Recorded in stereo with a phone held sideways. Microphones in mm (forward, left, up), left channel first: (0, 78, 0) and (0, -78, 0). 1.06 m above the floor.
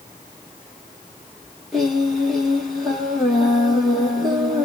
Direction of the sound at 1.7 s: Centre (ahead or behind).